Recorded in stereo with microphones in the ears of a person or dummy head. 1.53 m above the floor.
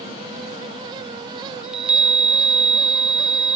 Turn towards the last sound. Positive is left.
turn(degrees=0)  # may be behind; listen again after turning